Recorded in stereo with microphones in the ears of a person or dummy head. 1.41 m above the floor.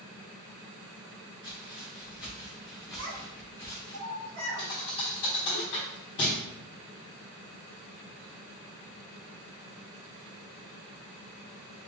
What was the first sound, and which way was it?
Footsteps, 20° right (ahead or behind).